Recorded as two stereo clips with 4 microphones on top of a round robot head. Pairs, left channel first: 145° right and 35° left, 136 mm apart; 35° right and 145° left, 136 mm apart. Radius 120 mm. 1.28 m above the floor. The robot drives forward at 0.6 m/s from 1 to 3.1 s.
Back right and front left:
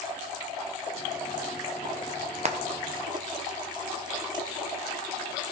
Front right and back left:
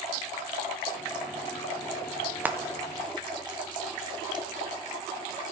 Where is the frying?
70° left, 1.1 m; by 4.5 s 90° left, 1.0 m.